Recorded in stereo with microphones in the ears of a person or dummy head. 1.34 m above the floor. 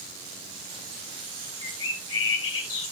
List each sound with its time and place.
1.6 s a bird: 75° left (ahead or behind), 2.5 m